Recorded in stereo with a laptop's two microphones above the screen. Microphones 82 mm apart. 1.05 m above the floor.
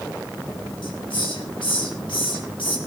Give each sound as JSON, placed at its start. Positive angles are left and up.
{"t": 0.8, "sound": "a hiss", "side_deg": 85, "distance_m": 5.5}